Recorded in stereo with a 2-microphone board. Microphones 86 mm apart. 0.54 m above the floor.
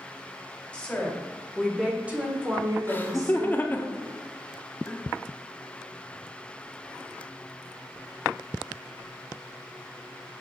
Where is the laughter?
20° left (ahead or behind), 0.9 m.